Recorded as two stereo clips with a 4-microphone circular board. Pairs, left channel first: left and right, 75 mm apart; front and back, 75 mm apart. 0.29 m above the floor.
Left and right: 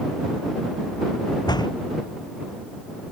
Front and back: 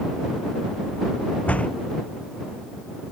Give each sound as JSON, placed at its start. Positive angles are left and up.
{"t": 1.5, "sound": "a door slam", "azimuth_deg": 70}